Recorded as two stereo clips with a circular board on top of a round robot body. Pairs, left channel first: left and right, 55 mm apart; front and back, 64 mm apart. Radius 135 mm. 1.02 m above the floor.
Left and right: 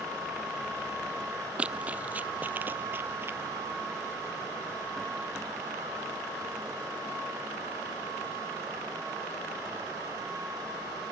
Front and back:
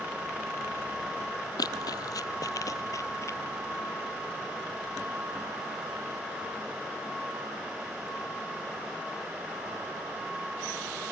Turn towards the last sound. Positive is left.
turn(degrees=-45)